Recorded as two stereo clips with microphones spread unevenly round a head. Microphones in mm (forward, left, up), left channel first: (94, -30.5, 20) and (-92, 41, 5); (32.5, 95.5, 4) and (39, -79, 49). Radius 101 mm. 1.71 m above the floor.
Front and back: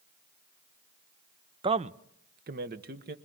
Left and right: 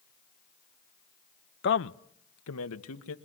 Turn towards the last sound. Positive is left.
turn(degrees=115)